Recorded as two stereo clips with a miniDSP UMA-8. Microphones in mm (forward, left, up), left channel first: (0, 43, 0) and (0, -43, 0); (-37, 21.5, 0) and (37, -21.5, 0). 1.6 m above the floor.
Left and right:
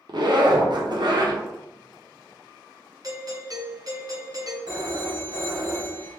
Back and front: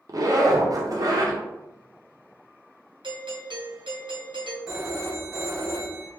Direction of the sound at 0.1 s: 70° right.